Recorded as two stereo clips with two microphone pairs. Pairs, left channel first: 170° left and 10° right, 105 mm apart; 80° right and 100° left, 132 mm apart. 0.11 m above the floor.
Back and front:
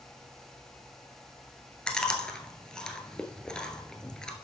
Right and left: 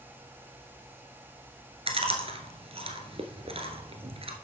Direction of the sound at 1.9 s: 90° left.